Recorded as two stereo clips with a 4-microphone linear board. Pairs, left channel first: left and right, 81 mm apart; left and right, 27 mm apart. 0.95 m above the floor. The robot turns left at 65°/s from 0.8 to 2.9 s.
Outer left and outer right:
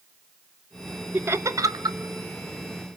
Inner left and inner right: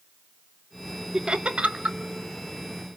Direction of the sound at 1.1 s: 20° right (ahead or behind).